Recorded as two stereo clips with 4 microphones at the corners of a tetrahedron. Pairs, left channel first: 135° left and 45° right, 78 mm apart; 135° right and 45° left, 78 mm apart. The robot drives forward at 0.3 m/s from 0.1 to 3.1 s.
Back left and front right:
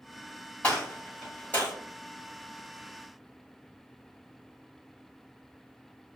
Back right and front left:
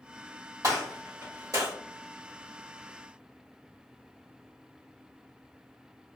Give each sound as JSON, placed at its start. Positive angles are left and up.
{"t": 0.6, "sound": "a gunshot", "azimuth_deg": 65, "distance_m": 2.0}